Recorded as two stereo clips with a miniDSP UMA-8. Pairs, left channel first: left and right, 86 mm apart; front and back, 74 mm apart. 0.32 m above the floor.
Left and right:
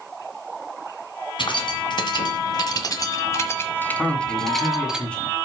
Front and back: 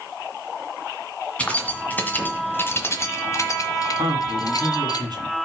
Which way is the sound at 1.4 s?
70° left.